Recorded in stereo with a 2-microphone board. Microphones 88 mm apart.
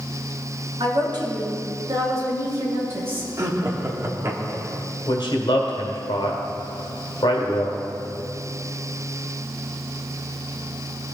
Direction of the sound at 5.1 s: 65° left (ahead or behind).